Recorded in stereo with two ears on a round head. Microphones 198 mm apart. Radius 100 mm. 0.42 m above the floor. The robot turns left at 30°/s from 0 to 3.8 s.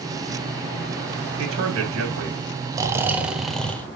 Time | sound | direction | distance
1.4 | a man speaking | 75° right | 2.5 m
2.7 | snoring | 160° right | 0.9 m